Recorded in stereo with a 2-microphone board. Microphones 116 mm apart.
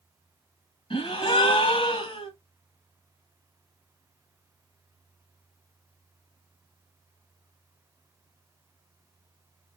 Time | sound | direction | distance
0.9 | a gasp | 50° left (ahead or behind) | 1.5 m